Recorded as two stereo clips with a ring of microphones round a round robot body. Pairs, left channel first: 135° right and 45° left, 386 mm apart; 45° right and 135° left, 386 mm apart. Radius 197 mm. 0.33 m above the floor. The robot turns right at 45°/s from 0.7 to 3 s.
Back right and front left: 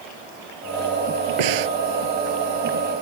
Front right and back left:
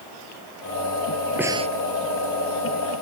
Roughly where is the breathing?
Ahead left.